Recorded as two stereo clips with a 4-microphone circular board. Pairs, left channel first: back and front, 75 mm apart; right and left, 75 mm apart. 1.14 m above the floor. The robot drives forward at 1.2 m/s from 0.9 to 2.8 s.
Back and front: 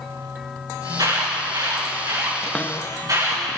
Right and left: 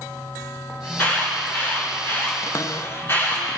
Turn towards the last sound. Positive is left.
turn(degrees=-135)